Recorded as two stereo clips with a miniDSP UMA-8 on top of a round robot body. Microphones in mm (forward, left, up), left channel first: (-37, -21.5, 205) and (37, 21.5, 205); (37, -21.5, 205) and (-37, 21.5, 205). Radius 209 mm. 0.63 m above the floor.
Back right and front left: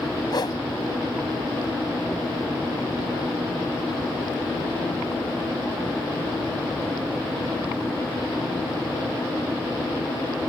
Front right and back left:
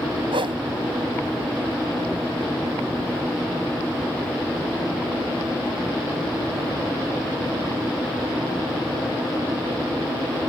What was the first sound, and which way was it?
A whoosh, 170° left.